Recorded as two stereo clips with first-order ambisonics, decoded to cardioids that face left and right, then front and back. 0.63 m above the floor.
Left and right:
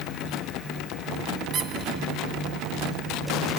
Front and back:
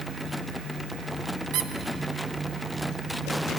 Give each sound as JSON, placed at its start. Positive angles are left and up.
{"t": 1.5, "sound": "a squeak", "azimuth_deg": -150, "distance_m": 0.7}